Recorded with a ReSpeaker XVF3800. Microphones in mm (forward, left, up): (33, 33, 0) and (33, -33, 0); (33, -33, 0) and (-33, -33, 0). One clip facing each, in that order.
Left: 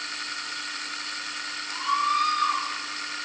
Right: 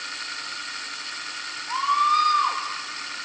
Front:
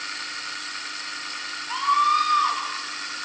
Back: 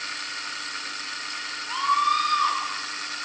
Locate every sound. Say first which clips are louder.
1.7 s a scream: right 4 dB, front 2 dB; 85° right, 7 m